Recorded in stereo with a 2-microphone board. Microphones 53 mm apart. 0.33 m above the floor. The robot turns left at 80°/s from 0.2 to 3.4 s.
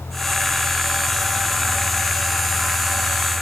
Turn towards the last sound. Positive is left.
No sound to turn to.